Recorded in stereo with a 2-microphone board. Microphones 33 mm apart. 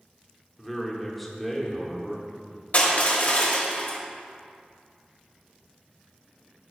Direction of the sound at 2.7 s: 55° left (ahead or behind).